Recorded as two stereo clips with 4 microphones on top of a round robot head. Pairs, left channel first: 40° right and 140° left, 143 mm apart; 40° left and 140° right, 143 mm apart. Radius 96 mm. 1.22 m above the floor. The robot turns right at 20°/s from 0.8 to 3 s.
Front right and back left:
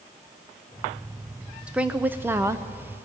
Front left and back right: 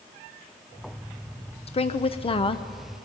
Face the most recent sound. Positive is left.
turn(degrees=85)